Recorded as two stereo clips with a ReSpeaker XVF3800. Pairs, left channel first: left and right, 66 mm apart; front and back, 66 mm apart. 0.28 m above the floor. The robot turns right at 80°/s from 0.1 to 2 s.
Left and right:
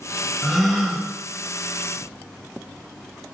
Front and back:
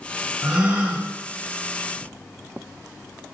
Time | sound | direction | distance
0.4 | a gasp | 160° left | 1.5 m